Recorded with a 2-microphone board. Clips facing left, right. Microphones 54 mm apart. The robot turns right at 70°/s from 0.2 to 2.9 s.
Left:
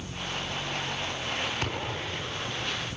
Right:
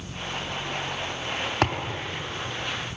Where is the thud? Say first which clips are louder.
Right 6 dB; 75° right (ahead or behind), 4 m; by 2.0 s 60° right (ahead or behind), 4 m.